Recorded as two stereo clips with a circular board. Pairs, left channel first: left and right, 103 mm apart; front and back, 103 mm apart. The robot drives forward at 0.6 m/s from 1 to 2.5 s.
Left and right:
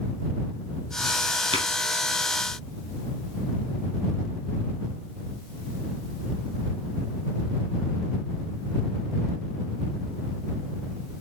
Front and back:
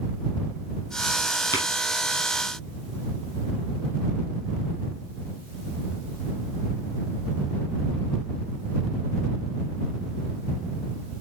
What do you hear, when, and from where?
1.5 s tapping: 65° right, 5.5 m